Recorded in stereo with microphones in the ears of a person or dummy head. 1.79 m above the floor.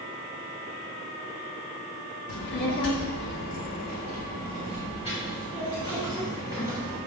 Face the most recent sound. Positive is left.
turn(degrees=25)  # may be behind; listen again after turning